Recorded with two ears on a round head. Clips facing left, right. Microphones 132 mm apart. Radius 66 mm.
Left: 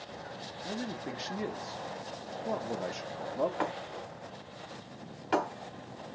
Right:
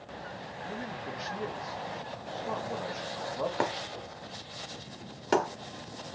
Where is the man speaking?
30° left (ahead or behind), 0.6 m.